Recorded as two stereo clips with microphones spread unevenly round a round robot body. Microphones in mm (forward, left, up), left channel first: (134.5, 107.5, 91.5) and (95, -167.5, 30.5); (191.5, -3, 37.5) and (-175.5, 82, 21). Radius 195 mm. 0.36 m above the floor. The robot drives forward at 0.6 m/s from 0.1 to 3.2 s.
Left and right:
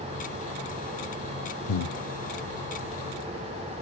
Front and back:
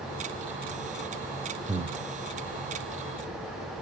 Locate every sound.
1.7 s breathing: 95° left, 0.8 m; by 2.0 s 110° left, 0.8 m